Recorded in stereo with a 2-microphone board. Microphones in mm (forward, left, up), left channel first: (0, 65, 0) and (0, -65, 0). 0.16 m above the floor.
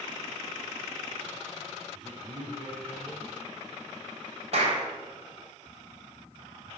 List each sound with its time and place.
1.9 s a man speaking: centre (ahead or behind), 3 m
4.5 s a clap: 55° right (ahead or behind), 4 m